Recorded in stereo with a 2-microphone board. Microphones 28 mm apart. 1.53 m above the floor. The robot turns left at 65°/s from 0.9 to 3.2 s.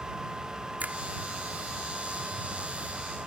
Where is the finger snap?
80° right.